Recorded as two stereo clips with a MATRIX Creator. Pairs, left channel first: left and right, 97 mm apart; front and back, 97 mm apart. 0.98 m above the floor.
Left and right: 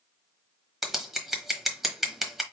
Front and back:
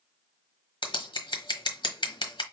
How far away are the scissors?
About 1.2 m.